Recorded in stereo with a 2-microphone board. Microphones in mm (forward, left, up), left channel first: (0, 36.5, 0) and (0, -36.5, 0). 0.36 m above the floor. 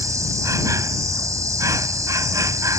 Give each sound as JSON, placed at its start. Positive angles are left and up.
{"t": 0.0, "sound": "an insect", "side_deg": -50}